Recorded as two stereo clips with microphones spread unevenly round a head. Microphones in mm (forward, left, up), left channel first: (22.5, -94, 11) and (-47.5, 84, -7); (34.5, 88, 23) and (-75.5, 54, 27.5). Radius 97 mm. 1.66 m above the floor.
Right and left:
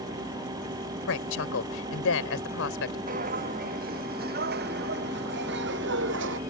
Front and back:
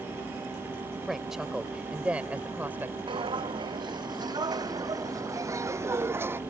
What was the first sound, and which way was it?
A woman speaking, 75° right.